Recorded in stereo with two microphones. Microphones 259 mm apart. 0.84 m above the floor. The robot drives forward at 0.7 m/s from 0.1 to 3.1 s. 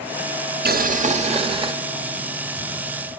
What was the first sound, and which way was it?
Boiling, 40° right (ahead or behind).